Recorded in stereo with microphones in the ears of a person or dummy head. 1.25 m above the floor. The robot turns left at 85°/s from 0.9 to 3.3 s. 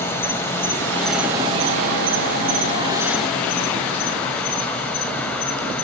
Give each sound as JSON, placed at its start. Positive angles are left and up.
{"t": 0.0, "sound": "an insect", "azimuth_deg": 15, "distance_m": 1.8}